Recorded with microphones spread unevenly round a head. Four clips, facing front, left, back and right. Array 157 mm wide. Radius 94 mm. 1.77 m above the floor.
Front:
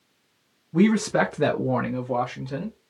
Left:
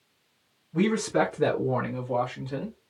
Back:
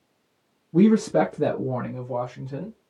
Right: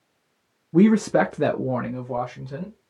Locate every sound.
0.7 s a man speaking: 105° right, 0.6 m; by 2.8 s 25° left, 1.1 m